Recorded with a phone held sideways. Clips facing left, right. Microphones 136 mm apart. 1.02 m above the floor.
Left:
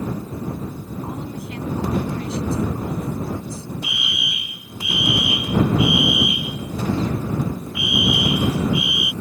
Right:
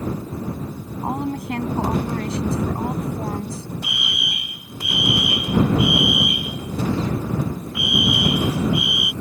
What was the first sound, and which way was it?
A woman speaking, 65° right (ahead or behind).